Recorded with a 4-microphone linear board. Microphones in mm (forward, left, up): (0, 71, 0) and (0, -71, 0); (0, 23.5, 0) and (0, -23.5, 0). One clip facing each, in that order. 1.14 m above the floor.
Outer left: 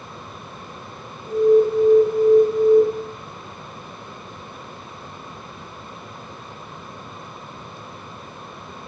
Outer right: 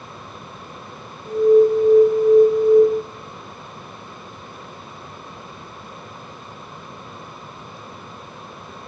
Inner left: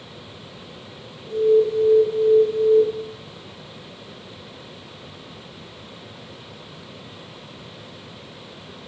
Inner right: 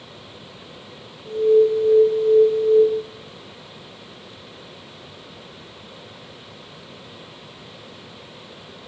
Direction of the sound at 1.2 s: 75° right (ahead or behind).